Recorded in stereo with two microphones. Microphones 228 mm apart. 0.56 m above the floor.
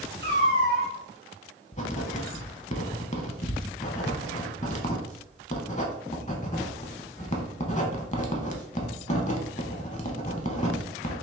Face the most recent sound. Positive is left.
turn(degrees=30)  # may be behind; listen again after turning